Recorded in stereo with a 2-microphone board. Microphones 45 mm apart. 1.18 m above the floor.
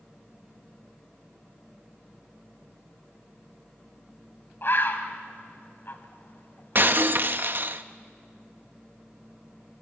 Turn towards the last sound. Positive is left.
turn(degrees=-50)  # may be behind; listen again after turning